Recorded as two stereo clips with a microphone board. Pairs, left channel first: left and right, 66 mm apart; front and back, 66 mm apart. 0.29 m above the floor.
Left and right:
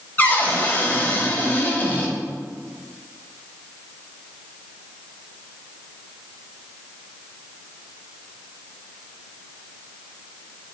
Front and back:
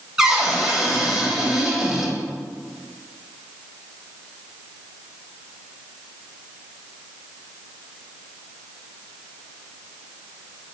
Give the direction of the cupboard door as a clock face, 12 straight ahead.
8 o'clock.